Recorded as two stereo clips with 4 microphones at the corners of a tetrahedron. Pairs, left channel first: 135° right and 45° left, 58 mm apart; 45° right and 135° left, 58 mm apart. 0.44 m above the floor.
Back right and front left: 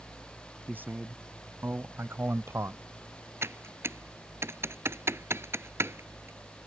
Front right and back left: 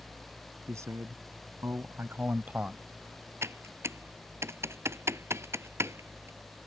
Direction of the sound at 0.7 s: 100° left.